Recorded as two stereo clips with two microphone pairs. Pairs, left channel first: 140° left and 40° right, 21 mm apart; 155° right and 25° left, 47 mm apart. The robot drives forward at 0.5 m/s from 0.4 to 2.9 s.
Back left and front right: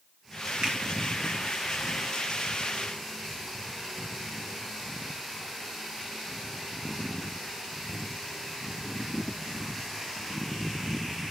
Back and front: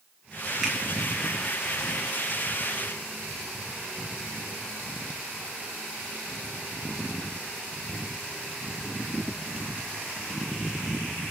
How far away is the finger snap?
About 1.2 m.